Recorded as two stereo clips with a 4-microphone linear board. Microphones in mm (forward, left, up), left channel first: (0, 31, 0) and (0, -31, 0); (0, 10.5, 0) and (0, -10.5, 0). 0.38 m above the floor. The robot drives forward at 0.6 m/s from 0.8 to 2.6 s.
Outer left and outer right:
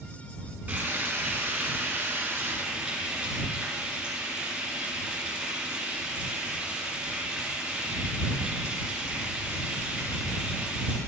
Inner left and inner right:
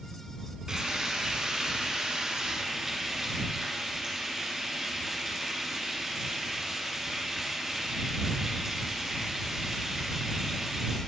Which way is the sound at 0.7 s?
25° right (ahead or behind).